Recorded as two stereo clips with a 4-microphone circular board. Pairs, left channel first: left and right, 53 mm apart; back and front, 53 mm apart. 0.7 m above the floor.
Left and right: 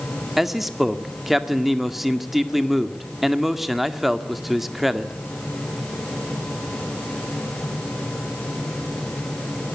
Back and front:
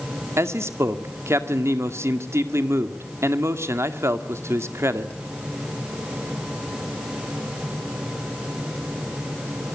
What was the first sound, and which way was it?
A man speaking, 5° right.